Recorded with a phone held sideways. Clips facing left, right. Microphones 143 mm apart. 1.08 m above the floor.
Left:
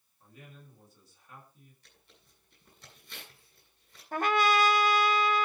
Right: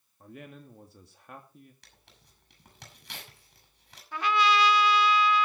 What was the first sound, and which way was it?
A man speaking, 65° right (ahead or behind).